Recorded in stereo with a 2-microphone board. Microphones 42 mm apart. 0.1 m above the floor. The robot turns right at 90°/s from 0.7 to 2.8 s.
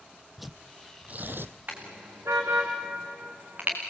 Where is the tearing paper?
Centre (ahead or behind), 0.7 m; by 1.5 s 70° right (ahead or behind), 0.7 m.